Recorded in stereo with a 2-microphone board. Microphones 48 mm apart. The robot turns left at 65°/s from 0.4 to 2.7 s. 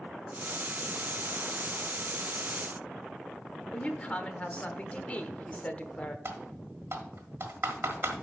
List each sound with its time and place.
3.7 s a woman speaking: 30° left (ahead or behind), 0.9 m
6.2 s typing on a keyboard: 55° right (ahead or behind), 1.5 m